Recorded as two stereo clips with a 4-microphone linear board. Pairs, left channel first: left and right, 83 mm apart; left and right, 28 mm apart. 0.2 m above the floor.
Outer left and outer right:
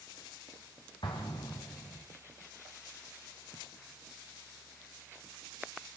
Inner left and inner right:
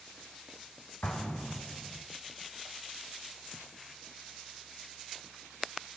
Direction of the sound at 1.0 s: 70° left (ahead or behind).